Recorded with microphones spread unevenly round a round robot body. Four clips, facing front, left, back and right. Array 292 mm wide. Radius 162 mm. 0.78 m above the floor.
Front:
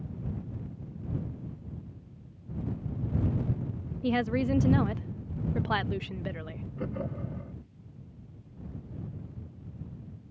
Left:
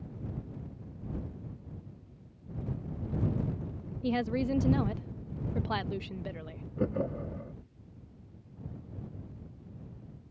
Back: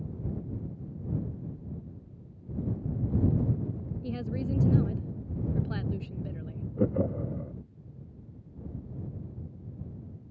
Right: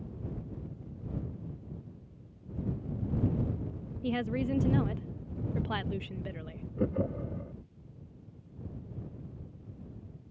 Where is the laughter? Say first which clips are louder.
Even, back 8 dB; 170° right.